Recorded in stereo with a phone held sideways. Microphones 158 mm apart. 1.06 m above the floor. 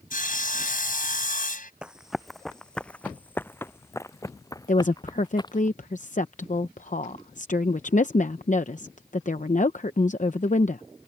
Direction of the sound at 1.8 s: 5° right (ahead or behind).